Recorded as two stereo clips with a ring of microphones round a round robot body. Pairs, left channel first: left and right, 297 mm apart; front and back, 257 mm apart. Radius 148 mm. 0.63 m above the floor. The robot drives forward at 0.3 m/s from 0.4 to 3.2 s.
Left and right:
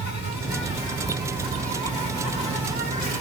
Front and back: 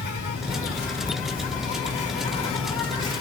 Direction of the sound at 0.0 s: 40° left.